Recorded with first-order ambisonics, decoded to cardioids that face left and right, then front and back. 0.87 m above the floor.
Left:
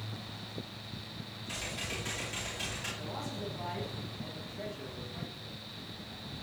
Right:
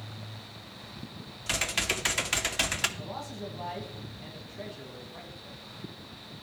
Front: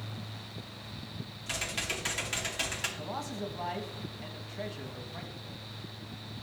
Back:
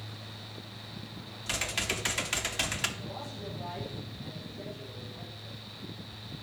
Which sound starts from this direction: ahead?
A man speaking, at 3.0 s.